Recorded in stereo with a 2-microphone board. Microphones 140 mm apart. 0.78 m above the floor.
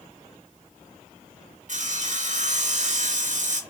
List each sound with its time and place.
1.7 s sawing: 60° right (ahead or behind), 0.7 m